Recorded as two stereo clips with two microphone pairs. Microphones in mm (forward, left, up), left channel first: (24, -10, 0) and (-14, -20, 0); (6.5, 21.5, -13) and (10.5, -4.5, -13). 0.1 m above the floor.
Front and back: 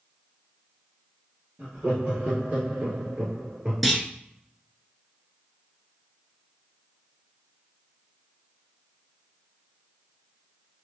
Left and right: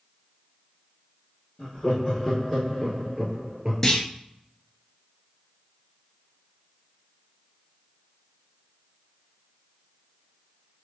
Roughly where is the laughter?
Behind.